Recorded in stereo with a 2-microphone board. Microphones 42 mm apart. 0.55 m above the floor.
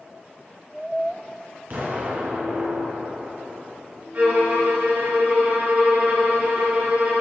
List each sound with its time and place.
1.7 s an explosion: 45° right (ahead or behind), 3 m
4.1 s a violin: 45° right (ahead or behind), 4 m